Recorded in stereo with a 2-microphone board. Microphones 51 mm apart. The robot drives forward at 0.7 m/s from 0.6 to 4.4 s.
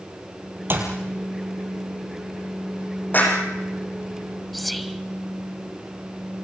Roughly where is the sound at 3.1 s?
Left.